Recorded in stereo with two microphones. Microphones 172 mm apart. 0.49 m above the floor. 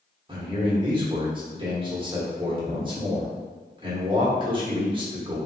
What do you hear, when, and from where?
0.3 s a man speaking: 30° right (ahead or behind), 1.0 m